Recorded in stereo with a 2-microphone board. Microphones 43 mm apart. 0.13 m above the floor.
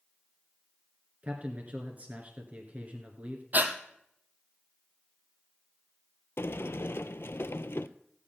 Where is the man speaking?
40° right (ahead or behind), 1.6 m.